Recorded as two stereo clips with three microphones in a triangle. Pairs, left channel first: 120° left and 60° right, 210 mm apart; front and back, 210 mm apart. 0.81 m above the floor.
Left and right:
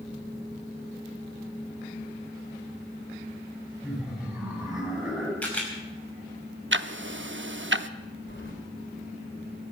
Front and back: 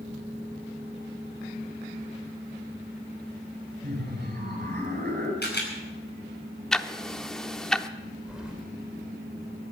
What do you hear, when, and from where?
3.8 s laughter: 145° right, 5.5 m
5.4 s a camera shutter: 35° left, 5 m
6.7 s ticking: 85° right, 0.7 m
8.3 s keys jangling: 95° left, 2.5 m